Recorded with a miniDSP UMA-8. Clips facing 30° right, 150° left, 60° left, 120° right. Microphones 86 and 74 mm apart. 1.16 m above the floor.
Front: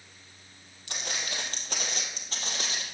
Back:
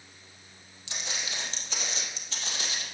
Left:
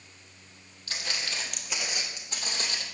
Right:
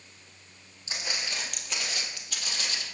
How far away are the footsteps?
About 2.5 m.